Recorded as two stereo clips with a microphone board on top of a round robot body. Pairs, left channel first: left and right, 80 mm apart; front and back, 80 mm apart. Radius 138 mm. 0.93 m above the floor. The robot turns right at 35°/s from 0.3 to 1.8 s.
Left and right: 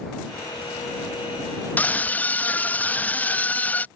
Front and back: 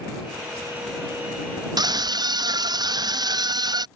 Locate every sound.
1.8 s a scream: 155° left; by 3.9 s 160° left